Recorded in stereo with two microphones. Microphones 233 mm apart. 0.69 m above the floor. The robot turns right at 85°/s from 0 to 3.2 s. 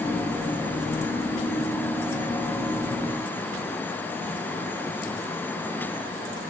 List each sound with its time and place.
Only background noise.